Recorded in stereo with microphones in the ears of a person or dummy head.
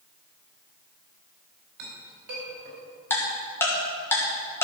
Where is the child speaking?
No child speaking in this recording.